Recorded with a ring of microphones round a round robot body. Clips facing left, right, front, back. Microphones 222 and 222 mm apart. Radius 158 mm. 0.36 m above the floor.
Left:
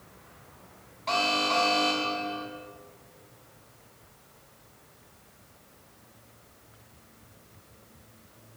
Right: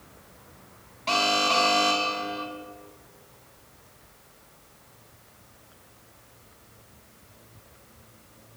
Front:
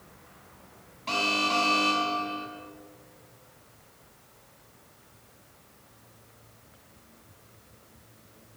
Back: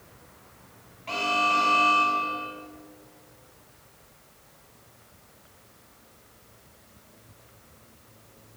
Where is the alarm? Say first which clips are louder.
Right 2 dB, even; 45° right, 4.5 m.